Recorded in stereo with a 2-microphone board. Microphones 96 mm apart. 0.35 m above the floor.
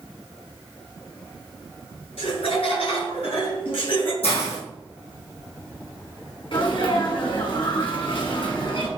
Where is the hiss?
90° left, 4.5 m.